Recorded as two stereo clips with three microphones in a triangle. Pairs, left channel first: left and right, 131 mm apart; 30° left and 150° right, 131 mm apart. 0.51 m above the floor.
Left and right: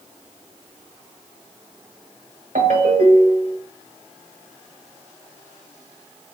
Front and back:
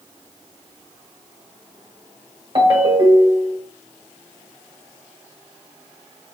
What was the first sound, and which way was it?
A ringtone, 95° right.